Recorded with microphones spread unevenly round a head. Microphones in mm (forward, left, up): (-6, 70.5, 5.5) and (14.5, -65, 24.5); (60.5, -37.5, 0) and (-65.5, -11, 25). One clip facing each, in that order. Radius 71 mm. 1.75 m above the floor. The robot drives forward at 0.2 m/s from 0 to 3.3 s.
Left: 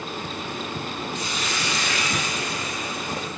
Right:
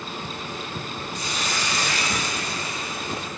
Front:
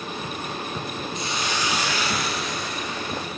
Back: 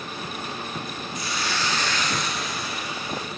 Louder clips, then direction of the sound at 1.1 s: Even, even; 80° right.